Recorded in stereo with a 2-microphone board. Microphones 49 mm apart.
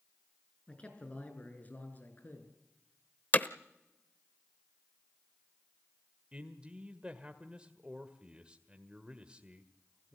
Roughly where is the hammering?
Left.